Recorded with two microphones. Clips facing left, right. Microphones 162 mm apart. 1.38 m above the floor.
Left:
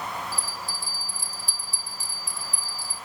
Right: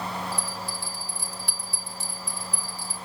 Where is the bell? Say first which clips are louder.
Right 2 dB; 65° right (ahead or behind), 0.7 m.